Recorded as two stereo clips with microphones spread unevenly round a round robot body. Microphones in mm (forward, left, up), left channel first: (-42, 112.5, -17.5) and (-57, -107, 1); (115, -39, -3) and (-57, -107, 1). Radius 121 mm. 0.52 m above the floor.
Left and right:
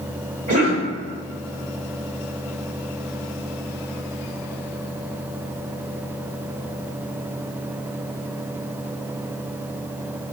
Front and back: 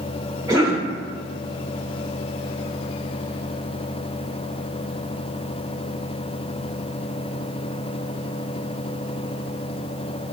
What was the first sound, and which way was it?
A cough, 90° right.